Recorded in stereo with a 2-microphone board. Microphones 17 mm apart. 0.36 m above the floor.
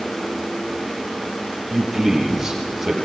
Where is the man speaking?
15° right (ahead or behind), 8.5 m.